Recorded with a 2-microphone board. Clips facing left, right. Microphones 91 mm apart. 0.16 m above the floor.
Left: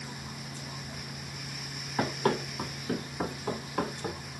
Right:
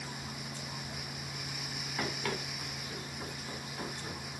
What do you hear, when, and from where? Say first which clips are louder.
2.0 s running footsteps: left 9 dB; 35° left (ahead or behind), 1.3 m; by 4.2 s 45° left (ahead or behind), 1.6 m